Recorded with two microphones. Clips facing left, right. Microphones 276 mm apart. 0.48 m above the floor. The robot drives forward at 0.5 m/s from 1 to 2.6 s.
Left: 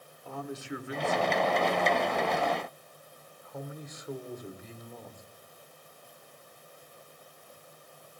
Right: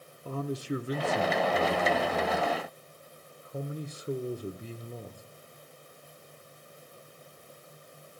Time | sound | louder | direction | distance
0.2 | a man speaking | right 5 dB | 40° right (ahead or behind) | 1.0 m